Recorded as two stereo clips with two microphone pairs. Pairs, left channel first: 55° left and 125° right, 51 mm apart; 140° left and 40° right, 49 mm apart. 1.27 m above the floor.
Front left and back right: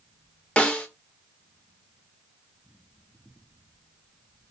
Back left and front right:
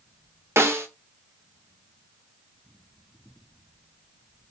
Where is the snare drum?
15° right, 0.6 m.